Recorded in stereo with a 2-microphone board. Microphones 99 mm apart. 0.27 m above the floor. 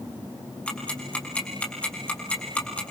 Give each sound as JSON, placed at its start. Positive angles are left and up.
{"t": 0.7, "sound": "ticking", "side_deg": 10, "distance_m": 5.0}